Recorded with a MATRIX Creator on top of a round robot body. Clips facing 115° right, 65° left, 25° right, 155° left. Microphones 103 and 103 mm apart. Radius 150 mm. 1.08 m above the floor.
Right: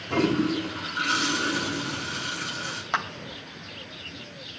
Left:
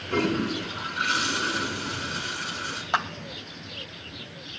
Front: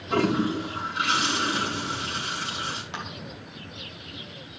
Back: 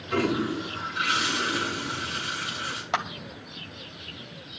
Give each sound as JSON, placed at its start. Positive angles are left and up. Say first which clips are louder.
{"t": 0.1, "sound": "a toilet flushing", "louder": "right 2 dB, front 2 dB", "azimuth_deg": -85, "distance_m": 5.5}
{"t": 2.9, "sound": "a clap", "louder": "left 2 dB, back 8 dB", "azimuth_deg": 150, "distance_m": 2.5}